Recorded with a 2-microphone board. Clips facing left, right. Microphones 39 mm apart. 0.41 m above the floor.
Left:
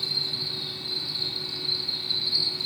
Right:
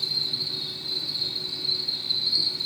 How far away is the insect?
About 0.9 m.